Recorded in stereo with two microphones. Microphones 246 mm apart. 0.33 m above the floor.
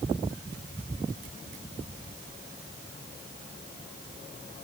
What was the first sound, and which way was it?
Only background noise.